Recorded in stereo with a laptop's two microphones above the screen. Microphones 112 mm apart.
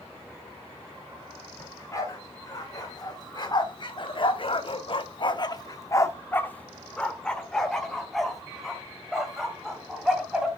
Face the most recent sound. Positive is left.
turn(degrees=-5)  # may be behind; listen again after turning